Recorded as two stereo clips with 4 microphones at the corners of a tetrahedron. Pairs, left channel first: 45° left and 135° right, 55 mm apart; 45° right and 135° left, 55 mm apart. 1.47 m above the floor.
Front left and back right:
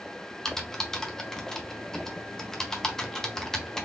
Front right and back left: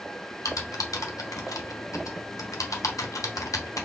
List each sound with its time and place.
0.5 s typing on a keyboard: 35° right, 0.6 m